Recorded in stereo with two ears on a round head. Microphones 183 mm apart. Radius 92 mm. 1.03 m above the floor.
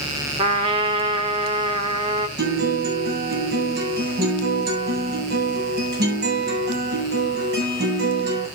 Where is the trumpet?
25° right (ahead or behind), 1.2 m.